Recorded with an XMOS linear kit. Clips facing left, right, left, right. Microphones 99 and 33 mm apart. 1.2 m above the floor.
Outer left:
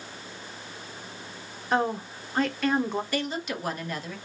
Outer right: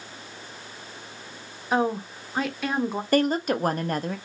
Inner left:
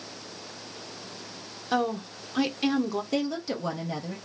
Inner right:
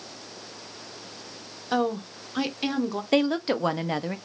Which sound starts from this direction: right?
A woman speaking, at 3.1 s.